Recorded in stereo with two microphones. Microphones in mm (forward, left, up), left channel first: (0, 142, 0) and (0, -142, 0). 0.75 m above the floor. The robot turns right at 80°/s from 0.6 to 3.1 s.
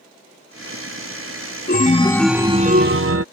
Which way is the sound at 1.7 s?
135° left.